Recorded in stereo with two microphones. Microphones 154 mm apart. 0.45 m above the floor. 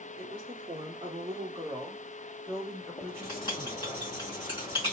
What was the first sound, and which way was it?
A woman speaking, 40° right (ahead or behind).